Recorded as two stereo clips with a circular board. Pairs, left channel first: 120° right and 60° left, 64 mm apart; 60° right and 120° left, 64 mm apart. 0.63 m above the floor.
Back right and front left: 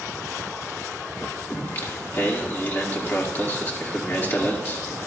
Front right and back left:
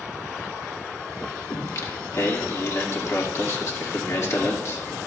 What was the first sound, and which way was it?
Singing, 75° right.